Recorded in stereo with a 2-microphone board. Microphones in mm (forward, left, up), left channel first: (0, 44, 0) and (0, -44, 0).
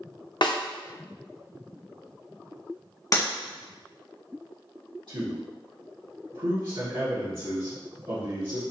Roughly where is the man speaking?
Right.